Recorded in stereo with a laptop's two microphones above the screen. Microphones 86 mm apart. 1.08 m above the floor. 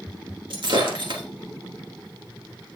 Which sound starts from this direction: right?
Breaking glass, at 0.5 s.